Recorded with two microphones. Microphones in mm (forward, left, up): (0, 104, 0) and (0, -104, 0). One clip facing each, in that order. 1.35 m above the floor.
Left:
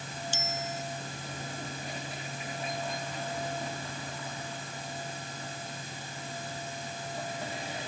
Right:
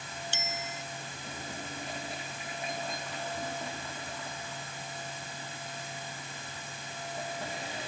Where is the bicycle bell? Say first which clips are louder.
Left 4 dB; 70° right (ahead or behind).